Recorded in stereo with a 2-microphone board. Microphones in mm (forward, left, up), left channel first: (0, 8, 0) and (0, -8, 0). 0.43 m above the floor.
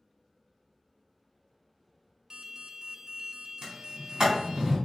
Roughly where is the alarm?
Right.